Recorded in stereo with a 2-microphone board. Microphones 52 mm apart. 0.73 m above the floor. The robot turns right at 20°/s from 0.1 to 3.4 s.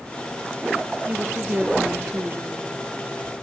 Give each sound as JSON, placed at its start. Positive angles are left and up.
{"t": 1.1, "sound": "a woman speaking", "azimuth_deg": -150, "distance_m": 1.3}